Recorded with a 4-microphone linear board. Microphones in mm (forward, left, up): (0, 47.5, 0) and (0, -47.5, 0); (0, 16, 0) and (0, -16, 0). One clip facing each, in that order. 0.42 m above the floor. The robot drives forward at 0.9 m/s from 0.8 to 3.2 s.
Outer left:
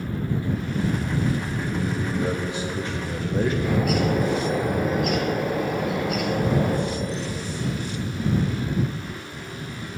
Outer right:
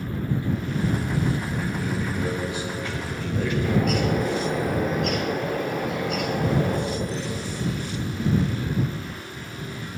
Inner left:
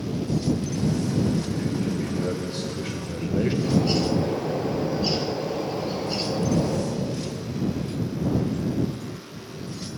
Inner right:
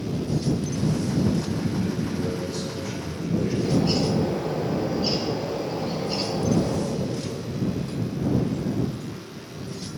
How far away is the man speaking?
About 2 m.